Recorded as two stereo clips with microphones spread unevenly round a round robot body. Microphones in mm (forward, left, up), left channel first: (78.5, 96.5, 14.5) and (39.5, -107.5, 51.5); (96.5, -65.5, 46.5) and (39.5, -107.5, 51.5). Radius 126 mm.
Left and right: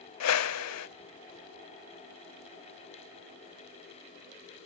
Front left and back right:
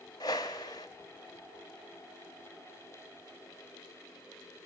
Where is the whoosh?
105° left, 0.8 m.